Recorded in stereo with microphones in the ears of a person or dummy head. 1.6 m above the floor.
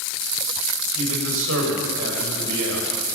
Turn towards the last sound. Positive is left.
turn(degrees=-70)  # may be behind; listen again after turning